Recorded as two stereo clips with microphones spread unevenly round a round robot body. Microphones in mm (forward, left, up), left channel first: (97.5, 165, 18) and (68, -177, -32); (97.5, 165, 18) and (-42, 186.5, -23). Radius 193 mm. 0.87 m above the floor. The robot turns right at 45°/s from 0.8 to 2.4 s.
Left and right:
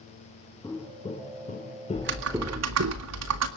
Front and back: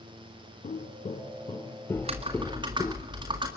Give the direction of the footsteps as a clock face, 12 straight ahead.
12 o'clock.